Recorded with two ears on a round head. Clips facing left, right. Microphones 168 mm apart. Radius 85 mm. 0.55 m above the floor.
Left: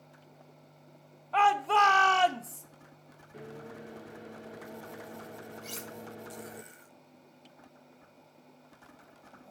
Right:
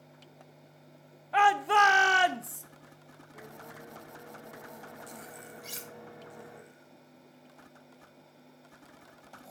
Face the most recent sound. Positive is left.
turn(degrees=-5)  # may be behind; listen again after turning